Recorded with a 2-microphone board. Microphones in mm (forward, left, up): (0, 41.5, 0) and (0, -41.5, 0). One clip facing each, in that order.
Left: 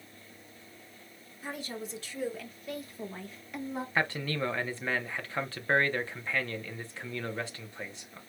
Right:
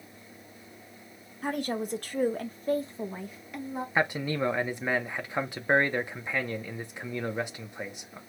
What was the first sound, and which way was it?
A woman speaking, 60° right (ahead or behind).